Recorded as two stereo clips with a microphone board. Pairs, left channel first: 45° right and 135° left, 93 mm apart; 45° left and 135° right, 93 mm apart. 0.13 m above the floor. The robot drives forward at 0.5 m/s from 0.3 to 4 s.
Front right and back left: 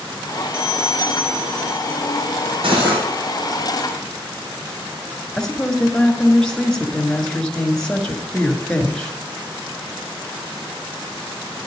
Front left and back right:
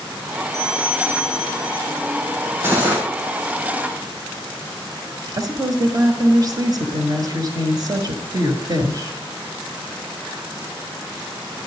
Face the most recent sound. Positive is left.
turn(degrees=-125)